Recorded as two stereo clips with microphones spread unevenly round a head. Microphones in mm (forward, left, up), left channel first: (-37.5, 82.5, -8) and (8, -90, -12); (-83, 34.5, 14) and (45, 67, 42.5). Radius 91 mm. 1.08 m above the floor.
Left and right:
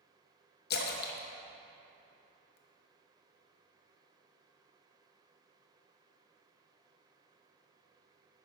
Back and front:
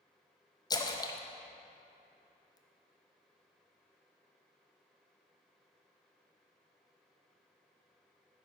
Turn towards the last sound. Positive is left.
turn(degrees=135)